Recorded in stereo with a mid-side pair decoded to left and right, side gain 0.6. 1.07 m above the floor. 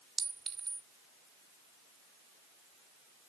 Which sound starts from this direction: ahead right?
A clink, at 0.2 s.